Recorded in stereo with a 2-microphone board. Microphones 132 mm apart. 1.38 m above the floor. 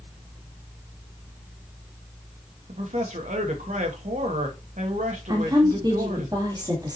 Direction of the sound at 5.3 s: 30° right (ahead or behind).